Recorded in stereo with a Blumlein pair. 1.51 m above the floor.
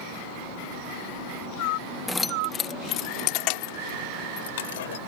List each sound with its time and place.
2.1 s keys jangling: 5° left; by 5.0 s 55° left